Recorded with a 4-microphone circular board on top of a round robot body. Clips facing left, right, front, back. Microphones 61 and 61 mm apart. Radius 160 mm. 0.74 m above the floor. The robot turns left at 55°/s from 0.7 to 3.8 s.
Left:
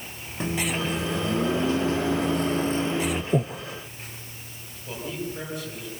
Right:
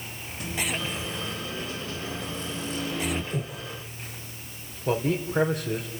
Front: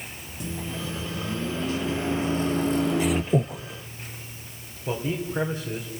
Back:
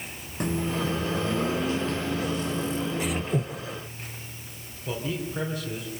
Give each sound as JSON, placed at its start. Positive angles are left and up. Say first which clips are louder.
{"t": 0.4, "sound": "a microwave", "louder": "left 4 dB, back 6 dB", "azimuth_deg": 145, "distance_m": 1.4}
{"t": 3.3, "sound": "breathing", "louder": "left 8 dB, front 5 dB", "azimuth_deg": 40, "distance_m": 0.7}
{"t": 4.9, "sound": "a man speaking", "louder": "right 7 dB, front 3 dB", "azimuth_deg": -70, "distance_m": 3.5}